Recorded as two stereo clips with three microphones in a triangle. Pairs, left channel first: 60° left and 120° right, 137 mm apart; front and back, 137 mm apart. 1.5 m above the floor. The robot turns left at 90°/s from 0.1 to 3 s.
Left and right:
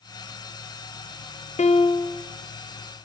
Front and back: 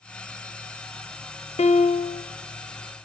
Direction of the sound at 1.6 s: 35° left.